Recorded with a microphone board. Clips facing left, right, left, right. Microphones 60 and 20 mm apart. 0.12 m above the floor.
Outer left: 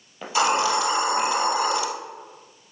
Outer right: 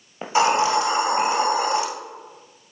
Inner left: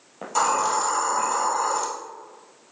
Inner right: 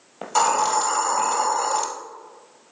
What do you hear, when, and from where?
0.2 s a hiss: 30° right (ahead or behind), 1.7 m